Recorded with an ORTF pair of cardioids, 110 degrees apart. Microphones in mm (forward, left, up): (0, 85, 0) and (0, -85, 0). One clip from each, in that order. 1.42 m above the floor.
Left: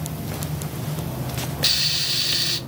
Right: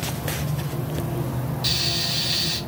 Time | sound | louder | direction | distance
1.6 | frying | left 3 dB | 40° left | 0.6 m